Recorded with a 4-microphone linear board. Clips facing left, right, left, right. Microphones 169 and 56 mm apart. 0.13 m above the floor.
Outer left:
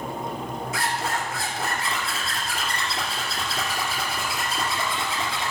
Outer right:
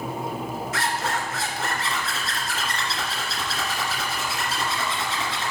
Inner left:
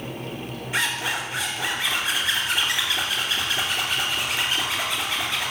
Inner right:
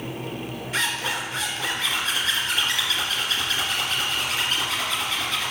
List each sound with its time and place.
0.7 s a zipper: 10° left (ahead or behind), 2 m